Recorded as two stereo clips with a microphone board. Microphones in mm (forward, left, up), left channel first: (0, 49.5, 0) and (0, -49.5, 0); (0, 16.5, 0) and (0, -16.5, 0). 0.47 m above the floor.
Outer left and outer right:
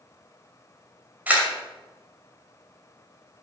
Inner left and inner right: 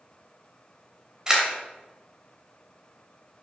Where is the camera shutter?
20° right (ahead or behind), 2.5 m.